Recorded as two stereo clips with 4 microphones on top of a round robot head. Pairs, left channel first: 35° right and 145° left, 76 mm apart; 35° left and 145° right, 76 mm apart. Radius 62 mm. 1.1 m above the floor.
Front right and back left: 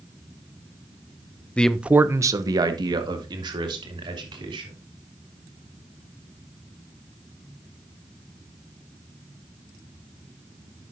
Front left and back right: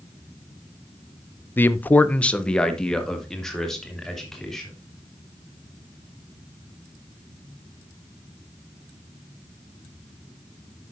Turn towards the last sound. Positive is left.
turn(degrees=125)